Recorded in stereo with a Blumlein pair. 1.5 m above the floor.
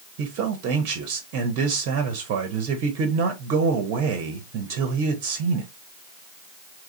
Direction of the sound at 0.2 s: 40° right.